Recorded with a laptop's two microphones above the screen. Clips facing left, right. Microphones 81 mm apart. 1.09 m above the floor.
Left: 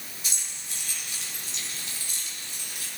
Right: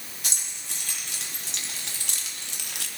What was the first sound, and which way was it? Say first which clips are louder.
Keys jangling: right 3 dB; 75° right (ahead or behind).